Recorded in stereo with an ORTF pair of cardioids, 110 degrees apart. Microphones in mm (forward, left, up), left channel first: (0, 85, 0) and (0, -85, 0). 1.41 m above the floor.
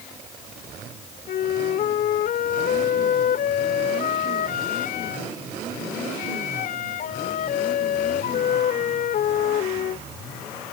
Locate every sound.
1.3 s a flute: 60° left